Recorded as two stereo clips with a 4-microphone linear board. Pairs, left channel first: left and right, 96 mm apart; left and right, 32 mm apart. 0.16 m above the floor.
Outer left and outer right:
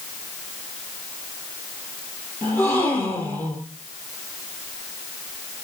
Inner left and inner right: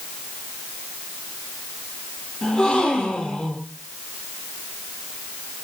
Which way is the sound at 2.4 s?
25° left (ahead or behind).